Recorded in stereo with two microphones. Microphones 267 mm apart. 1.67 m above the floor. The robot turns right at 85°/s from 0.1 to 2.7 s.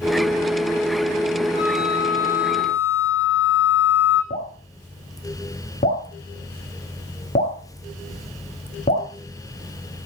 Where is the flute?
40° left, 8 m; by 4.2 s 140° left, 8 m.